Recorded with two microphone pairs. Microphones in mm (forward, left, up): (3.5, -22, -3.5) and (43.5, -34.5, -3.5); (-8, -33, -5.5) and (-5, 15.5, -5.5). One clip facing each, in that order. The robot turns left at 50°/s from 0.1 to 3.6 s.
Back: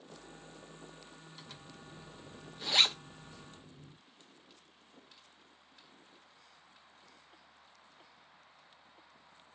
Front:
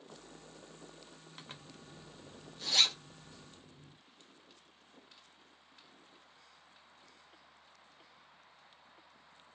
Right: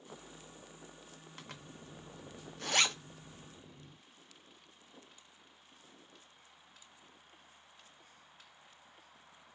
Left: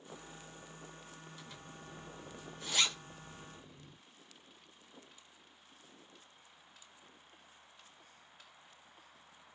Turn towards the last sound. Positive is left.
turn(degrees=-170)